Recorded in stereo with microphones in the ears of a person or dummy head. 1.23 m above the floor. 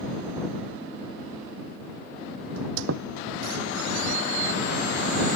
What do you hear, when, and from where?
2.6 s a squeak: 75° right (ahead or behind)